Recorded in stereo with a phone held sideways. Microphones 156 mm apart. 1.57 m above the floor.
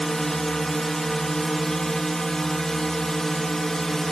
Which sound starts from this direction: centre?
A drone, at 0.0 s.